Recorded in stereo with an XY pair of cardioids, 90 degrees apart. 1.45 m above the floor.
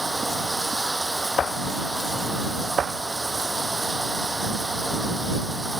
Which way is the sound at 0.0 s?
20° right.